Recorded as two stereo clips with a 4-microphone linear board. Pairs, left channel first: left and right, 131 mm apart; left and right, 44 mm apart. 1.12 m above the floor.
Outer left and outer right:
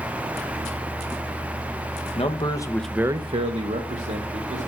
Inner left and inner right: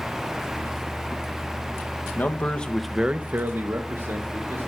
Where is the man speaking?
45° left (ahead or behind), 1.3 m; by 4.7 s 80° right, 2.5 m.